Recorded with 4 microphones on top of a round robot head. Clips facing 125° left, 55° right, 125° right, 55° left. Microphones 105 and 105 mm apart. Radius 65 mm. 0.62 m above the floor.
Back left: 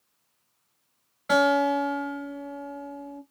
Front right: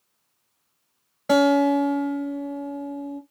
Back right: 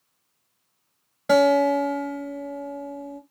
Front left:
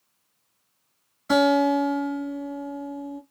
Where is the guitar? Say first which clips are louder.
Front right 4 dB, back right 2 dB; 105° right, 1.6 m.